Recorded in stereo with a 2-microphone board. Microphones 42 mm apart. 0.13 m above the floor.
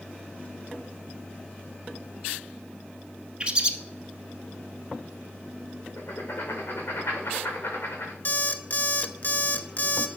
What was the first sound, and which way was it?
A bird, 30° right (ahead or behind).